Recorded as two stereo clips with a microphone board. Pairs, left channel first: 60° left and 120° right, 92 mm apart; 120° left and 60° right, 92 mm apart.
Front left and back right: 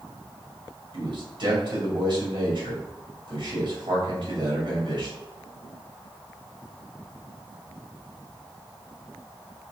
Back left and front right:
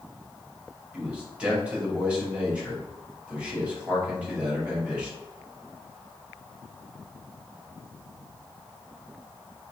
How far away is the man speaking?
About 1.9 m.